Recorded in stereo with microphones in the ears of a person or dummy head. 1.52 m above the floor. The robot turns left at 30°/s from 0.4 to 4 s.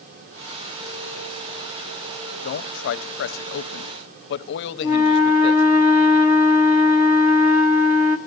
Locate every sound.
2.4 s a man speaking: 120° left, 0.7 m; by 5.6 s 75° left, 0.7 m
4.8 s a flute: 10° right (ahead or behind), 0.9 m